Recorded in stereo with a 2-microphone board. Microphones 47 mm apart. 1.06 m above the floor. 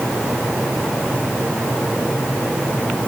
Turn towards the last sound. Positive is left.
No sound to turn to.